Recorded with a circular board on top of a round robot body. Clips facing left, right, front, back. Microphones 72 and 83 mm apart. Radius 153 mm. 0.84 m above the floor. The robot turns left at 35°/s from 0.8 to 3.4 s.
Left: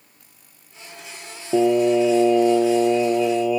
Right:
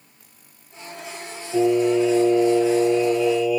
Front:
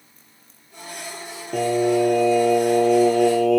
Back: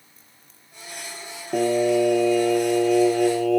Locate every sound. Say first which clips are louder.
1.5 s singing: left 1 dB, even; 95° left, 0.5 m; by 3.6 s 30° left, 0.5 m